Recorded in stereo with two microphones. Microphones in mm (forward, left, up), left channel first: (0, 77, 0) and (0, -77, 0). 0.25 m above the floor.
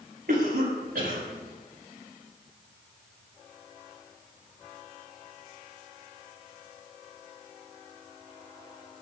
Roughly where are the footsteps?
No footsteps in this recording.